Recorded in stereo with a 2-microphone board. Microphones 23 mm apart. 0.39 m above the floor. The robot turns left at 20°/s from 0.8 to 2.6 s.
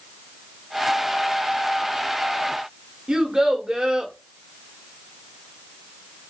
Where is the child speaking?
25° right (ahead or behind), 0.8 m.